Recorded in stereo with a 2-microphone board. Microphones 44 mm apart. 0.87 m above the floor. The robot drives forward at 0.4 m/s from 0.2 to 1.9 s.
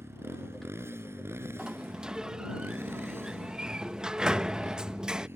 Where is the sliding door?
20° right (ahead or behind).